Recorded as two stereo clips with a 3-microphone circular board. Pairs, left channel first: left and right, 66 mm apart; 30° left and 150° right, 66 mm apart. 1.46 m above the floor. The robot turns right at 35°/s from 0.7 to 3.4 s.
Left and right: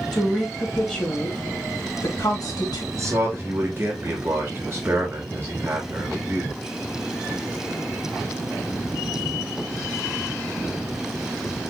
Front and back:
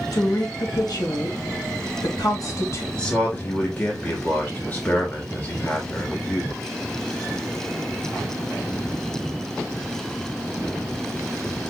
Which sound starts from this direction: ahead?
A woman speaking, at 0.1 s.